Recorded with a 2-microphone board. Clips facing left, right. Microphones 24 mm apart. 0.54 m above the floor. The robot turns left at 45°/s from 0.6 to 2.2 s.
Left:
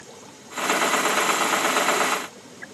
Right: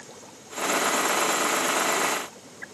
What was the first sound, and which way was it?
Only background noise.